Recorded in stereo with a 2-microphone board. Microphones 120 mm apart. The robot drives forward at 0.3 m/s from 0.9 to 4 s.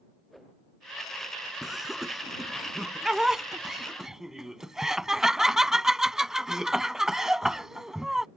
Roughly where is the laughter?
Centre.